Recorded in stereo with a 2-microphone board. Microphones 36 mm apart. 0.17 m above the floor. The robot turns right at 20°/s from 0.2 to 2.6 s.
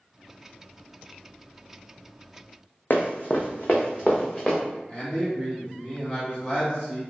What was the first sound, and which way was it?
Running footsteps, 70° left (ahead or behind).